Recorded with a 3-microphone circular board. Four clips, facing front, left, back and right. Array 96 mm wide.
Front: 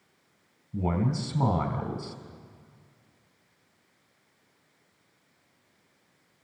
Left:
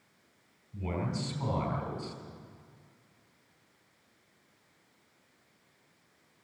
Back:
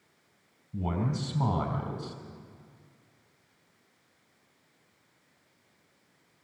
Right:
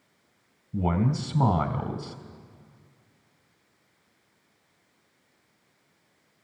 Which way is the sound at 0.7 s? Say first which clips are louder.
Right 9 dB, front 3 dB; 75° right.